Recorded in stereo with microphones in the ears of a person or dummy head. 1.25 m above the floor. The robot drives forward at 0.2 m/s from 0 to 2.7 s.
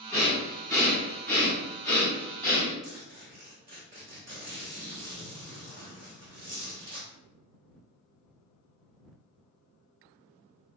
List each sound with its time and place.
0.1 s breathing: 10° left (ahead or behind), 1.7 m
2.8 s a zipper: 45° right (ahead or behind), 1.1 m